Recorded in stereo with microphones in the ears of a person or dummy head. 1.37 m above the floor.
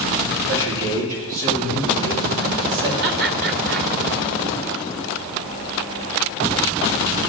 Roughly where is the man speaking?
Right.